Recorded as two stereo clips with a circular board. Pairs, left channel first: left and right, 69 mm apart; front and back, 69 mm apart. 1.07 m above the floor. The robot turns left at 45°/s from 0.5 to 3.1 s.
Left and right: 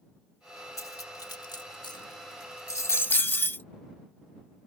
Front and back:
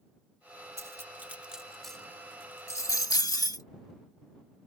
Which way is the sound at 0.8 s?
135° left.